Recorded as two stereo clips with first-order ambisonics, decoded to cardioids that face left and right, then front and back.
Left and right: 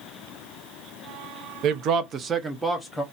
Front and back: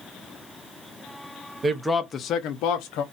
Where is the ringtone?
No ringtone in this recording.